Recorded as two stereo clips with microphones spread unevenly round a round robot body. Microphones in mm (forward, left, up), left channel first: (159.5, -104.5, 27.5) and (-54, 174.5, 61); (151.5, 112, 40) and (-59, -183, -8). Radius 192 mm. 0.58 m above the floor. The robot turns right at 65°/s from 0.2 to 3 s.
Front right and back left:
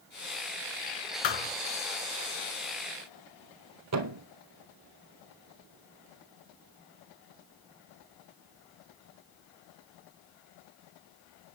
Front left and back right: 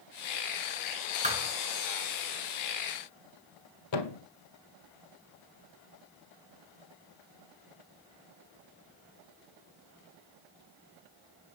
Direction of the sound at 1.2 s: 55° right.